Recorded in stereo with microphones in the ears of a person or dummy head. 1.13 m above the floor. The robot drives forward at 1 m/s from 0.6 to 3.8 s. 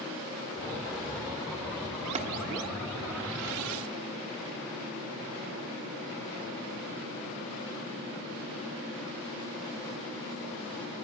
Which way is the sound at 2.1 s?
35° right (ahead or behind).